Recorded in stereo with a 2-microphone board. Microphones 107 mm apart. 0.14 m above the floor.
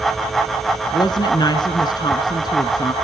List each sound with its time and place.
0.9 s a woman speaking: 40° left (ahead or behind), 1.3 m